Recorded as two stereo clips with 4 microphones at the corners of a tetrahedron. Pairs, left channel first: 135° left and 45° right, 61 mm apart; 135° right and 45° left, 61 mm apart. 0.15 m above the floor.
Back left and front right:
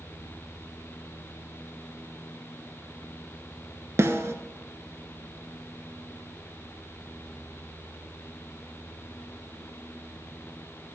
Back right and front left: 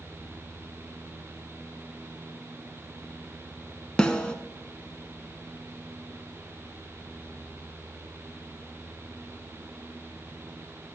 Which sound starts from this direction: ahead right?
A snare drum, at 4.0 s.